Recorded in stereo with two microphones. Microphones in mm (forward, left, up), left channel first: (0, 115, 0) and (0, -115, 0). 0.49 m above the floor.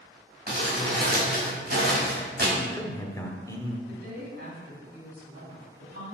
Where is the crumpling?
45° right (ahead or behind), 3 m.